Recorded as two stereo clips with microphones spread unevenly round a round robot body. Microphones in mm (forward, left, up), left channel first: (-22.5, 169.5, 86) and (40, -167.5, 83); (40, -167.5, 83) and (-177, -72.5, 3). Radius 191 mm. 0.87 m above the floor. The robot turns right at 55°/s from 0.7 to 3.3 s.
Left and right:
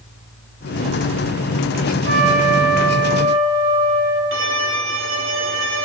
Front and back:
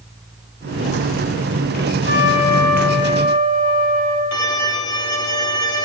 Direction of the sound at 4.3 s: 25° right.